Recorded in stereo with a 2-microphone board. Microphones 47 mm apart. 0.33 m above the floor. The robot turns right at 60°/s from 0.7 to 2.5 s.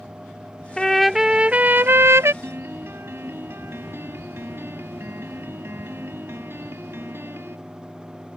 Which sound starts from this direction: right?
A piano, at 2.4 s.